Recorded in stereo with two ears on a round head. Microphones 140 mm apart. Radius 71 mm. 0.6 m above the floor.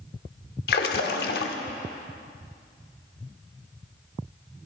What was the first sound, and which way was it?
A splash, 70° left (ahead or behind).